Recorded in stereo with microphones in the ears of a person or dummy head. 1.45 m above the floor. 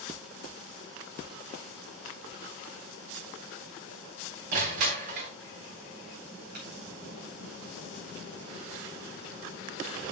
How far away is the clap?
About 3 m.